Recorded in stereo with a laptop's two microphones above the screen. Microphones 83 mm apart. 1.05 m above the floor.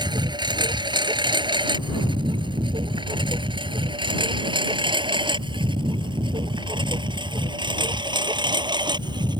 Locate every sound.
0.0 s a lawn mower: 65° right (ahead or behind)